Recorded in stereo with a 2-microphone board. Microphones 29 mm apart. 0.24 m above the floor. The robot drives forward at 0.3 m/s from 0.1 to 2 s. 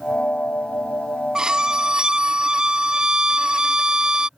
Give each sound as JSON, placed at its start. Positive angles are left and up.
{"t": 1.4, "sound": "a violin", "side_deg": -25}